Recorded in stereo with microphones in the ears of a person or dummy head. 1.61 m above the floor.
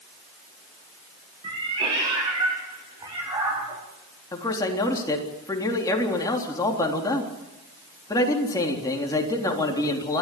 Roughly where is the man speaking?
Centre.